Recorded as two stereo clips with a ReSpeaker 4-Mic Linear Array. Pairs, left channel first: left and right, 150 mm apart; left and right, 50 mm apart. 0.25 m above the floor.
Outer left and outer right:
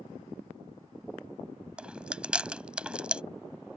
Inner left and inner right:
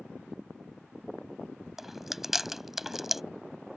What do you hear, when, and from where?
1.8 s chewing: 10° right (ahead or behind)